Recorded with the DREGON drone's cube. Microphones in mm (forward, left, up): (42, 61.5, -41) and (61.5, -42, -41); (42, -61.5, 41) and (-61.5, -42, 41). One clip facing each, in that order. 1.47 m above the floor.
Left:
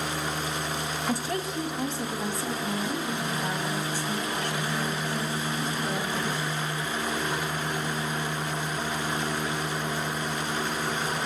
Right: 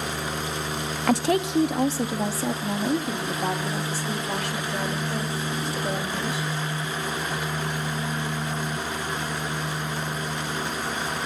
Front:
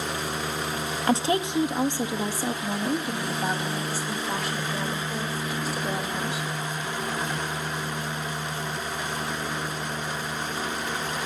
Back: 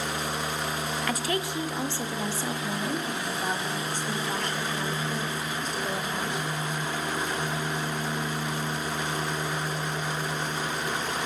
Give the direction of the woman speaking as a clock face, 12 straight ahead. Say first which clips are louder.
Right 10 dB, front 9 dB; 2 o'clock.